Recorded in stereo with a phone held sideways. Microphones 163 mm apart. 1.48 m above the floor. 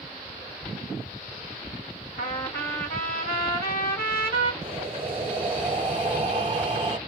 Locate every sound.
2.2 s a trumpet: 70° left (ahead or behind), 2.0 m
4.6 s breathing: 35° right (ahead or behind), 1.3 m